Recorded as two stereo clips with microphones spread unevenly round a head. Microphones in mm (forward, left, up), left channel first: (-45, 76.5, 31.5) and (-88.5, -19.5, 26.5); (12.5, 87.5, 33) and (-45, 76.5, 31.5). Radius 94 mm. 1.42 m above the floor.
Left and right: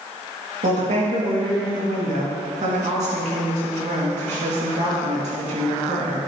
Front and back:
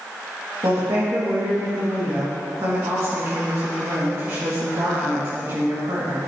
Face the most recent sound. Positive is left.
turn(degrees=-115)